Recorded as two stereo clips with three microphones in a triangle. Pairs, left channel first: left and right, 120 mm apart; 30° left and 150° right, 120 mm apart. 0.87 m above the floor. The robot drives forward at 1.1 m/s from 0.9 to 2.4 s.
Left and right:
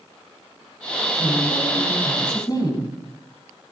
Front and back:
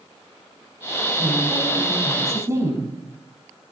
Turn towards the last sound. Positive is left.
turn(degrees=145)